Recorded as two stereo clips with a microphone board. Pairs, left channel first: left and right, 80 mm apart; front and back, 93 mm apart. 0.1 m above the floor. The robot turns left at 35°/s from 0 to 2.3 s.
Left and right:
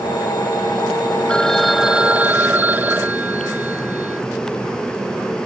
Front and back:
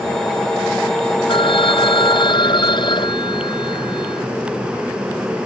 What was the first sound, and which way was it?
A phone ringing, 10° left.